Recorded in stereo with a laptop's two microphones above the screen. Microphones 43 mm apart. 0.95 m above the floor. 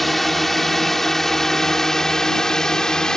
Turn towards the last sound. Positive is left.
turn(degrees=15)  # may be behind; listen again after turning